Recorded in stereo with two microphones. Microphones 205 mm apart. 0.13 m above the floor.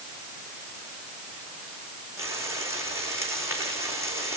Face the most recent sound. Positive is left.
turn(degrees=-10)  # may be behind; listen again after turning